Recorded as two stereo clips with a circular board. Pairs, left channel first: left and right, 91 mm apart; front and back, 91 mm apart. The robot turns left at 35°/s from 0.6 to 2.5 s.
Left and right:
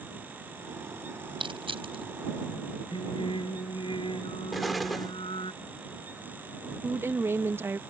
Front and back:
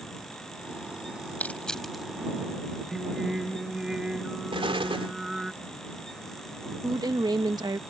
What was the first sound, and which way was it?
Crushing, 70° right.